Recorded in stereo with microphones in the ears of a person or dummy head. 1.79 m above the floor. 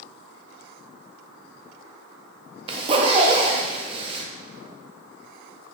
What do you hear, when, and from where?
2.7 s a zipper: 25° right (ahead or behind), 0.7 m